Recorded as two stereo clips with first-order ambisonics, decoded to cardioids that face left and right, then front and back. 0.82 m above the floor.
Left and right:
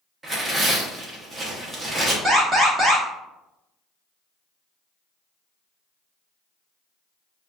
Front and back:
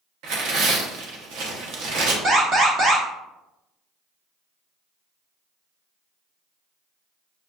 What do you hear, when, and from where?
0.2 s tearing paper: 165° right, 0.8 m
2.2 s an alarm: 160° right, 1.1 m